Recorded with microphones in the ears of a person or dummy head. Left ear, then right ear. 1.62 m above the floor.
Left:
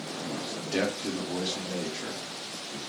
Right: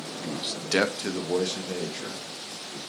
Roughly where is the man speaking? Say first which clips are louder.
Right 6 dB; right.